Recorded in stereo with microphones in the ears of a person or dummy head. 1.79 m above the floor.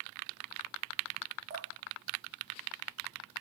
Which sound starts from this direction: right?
Dripping, at 1.5 s.